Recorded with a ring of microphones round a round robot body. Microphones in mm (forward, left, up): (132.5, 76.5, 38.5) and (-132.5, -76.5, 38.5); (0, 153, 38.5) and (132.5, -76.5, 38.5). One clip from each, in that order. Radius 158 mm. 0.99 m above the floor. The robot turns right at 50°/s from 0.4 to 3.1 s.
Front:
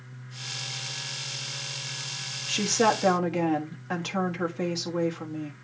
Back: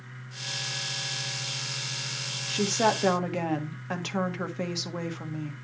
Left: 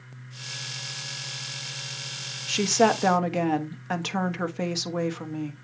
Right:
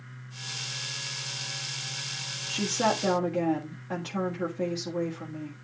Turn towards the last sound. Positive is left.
turn(degrees=130)